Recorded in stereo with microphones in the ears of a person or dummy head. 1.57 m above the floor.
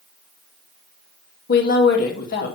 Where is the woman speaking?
55° left (ahead or behind), 2 m.